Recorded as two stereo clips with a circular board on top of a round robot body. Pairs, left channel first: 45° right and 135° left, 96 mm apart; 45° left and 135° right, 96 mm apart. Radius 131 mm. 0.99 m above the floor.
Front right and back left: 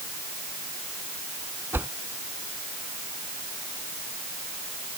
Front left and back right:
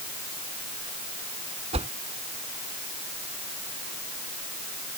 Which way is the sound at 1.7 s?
155° right.